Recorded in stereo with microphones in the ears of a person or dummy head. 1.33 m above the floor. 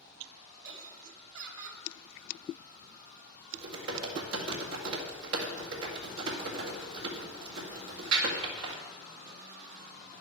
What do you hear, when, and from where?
0.6 s laughter: 70° right (ahead or behind), 2.5 m
3.5 s typing on a keyboard: 85° right, 1.9 m